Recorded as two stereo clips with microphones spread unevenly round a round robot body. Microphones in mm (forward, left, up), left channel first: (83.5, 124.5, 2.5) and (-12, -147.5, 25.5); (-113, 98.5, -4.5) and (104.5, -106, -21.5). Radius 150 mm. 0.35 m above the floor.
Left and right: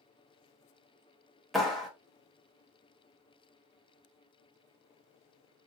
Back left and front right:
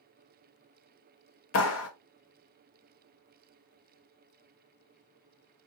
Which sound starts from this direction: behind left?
A clap, at 1.5 s.